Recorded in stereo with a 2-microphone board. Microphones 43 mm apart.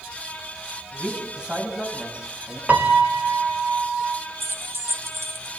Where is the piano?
40° right (ahead or behind), 2 m.